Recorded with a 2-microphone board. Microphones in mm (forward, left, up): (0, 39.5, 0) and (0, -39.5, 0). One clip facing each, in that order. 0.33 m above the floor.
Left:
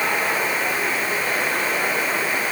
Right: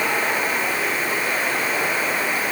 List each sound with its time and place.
Only background noise.